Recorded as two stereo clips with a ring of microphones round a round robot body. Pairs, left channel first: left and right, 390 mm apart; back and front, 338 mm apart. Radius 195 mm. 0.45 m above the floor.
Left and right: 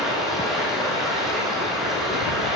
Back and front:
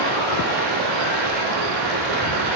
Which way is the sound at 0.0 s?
Straight ahead.